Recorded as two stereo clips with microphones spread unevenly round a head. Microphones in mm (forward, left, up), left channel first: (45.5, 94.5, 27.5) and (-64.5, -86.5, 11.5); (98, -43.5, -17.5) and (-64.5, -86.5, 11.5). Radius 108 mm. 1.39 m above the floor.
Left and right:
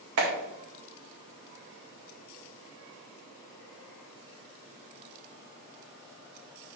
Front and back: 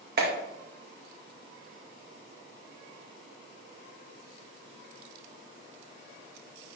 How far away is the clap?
About 1.6 m.